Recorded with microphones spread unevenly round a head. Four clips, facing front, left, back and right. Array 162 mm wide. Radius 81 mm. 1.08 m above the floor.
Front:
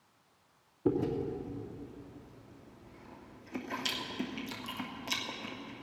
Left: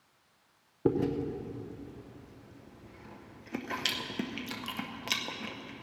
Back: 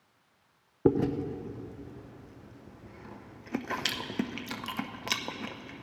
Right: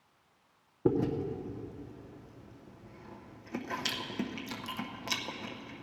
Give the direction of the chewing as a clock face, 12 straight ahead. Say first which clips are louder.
Even, back 5 dB; 6 o'clock.